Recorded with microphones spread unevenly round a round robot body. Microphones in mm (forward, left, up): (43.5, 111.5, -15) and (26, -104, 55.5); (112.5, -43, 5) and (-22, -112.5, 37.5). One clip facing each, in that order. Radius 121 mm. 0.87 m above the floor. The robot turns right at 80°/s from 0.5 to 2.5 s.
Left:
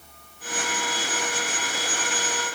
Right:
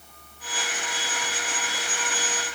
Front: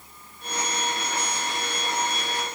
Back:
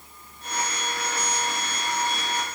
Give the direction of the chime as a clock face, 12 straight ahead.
I don't hear a chime.